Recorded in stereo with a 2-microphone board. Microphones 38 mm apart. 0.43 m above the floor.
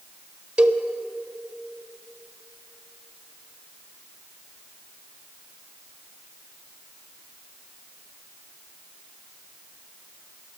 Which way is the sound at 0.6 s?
25° right (ahead or behind).